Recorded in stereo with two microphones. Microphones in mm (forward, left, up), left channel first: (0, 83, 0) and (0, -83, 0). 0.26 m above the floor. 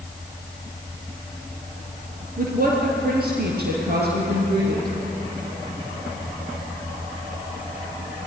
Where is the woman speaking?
55° right (ahead or behind), 4.5 m; by 4.9 s 70° right (ahead or behind), 7 m.